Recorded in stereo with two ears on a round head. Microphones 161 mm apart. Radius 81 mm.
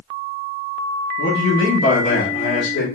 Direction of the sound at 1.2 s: 35° left (ahead or behind).